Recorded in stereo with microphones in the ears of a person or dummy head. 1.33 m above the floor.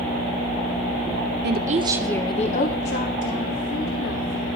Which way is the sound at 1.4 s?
55° right (ahead or behind).